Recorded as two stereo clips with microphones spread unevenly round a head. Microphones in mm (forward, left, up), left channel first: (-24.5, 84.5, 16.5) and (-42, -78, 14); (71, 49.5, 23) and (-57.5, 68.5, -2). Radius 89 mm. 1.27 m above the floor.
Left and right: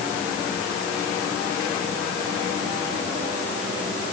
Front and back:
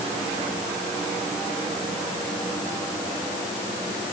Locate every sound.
Only background noise.